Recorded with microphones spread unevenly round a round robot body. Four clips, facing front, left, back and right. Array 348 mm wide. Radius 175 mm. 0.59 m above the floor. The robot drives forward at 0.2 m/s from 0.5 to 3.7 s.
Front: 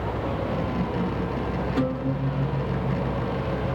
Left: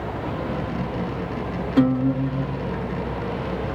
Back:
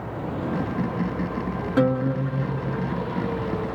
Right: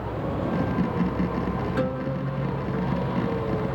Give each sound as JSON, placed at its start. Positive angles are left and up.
{"t": 1.8, "sound": "a guitar", "azimuth_deg": 140, "distance_m": 1.2}